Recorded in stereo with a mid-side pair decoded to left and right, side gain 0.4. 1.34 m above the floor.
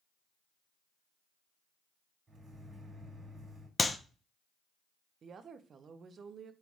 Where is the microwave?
45° right, 2.0 m.